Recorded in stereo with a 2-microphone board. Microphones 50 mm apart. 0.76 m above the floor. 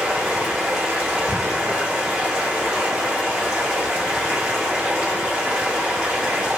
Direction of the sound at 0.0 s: 15° right (ahead or behind).